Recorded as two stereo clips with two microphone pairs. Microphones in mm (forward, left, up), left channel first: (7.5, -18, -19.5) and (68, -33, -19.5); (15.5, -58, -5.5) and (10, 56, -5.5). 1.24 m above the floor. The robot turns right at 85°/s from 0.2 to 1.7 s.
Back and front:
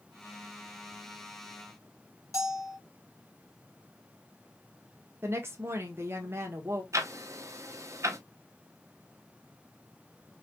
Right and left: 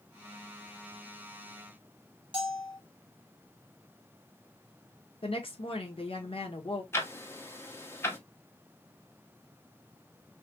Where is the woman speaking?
60° right, 1.1 m.